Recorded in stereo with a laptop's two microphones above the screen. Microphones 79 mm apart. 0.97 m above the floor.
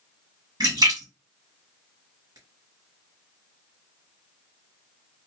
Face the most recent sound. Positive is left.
turn(degrees=-55)  # may be behind; listen again after turning